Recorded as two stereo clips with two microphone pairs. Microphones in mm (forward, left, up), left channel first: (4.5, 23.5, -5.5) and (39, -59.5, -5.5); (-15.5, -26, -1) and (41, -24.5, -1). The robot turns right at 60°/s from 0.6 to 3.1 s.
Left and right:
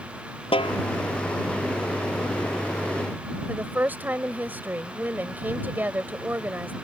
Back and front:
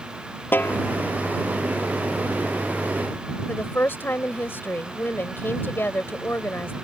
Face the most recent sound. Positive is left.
turn(degrees=-135)